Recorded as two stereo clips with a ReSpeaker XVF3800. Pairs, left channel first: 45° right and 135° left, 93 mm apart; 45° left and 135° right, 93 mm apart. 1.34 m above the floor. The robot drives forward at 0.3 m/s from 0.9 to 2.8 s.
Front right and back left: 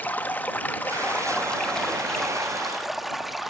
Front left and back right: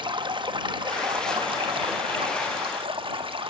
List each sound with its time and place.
0.0 s running water: 115° right, 1.1 m; by 3.5 s 135° right, 1.5 m